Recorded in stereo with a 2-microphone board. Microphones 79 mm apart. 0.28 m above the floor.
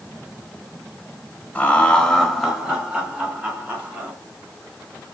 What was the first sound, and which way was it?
Laughter, 20° left (ahead or behind).